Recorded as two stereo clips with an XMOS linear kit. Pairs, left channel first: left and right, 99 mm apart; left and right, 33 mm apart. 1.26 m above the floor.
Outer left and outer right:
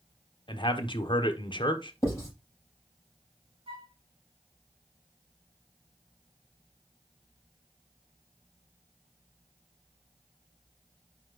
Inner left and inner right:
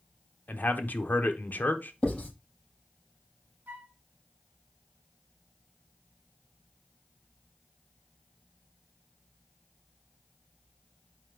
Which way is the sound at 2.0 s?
30° left (ahead or behind).